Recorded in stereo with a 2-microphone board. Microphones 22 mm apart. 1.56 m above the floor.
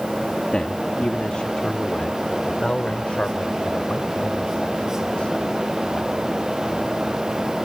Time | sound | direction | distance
0.5 | a man speaking | 45° left (ahead or behind) | ?